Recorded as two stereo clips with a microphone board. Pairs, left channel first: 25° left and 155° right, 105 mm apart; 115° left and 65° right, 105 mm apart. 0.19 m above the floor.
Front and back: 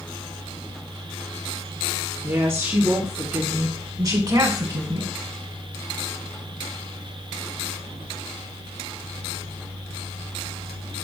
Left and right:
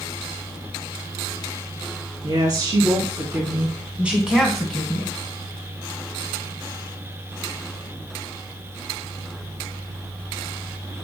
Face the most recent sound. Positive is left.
turn(degrees=175)